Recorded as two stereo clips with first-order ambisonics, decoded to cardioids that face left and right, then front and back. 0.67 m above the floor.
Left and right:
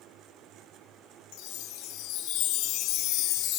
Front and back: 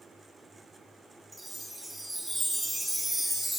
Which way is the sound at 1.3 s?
95° left.